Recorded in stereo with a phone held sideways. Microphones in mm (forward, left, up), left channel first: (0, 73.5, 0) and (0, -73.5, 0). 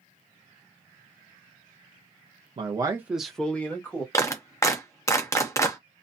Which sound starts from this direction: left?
A clap, at 4.1 s.